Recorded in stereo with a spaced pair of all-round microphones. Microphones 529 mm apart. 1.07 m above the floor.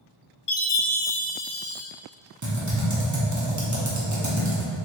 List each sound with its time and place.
0.5 s a chime: 75° left (ahead or behind), 0.7 m
2.4 s typing on a keyboard: 35° right (ahead or behind), 0.6 m